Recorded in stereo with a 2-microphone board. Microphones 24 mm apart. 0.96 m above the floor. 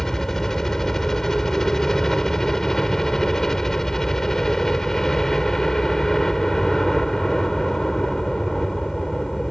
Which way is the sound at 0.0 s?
20° left (ahead or behind).